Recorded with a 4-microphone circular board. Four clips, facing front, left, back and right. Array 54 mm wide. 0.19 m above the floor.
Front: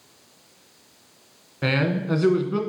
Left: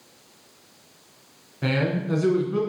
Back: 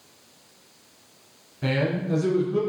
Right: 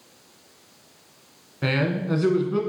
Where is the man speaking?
15° right, 1.6 m.